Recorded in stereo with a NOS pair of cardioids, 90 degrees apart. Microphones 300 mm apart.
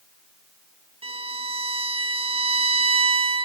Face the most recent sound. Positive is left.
turn(degrees=-20)